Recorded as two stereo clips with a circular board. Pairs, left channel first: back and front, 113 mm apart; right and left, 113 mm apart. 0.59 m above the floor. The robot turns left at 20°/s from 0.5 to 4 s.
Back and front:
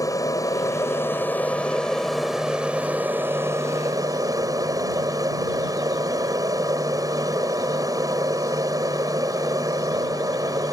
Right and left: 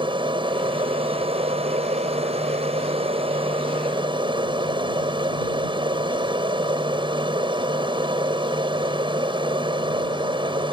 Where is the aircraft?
125° left; by 10.7 s 55° left.